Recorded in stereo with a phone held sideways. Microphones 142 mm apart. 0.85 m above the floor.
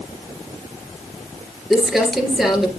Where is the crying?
No crying in this recording.